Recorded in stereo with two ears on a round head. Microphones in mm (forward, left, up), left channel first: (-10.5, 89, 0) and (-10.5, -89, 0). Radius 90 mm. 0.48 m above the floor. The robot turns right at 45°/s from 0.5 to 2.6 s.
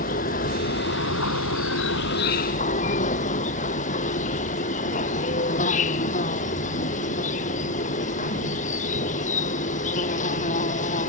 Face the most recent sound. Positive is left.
turn(degrees=140)